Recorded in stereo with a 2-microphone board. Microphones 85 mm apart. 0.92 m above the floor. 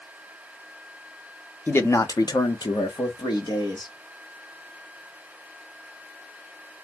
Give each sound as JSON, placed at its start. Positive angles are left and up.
{"t": 1.7, "sound": "a man speaking", "side_deg": 25, "distance_m": 0.6}